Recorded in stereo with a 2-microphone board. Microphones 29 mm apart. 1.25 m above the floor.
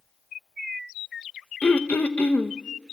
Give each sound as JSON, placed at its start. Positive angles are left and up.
{"t": 1.6, "sound": "throat clearing", "side_deg": 70, "distance_m": 0.8}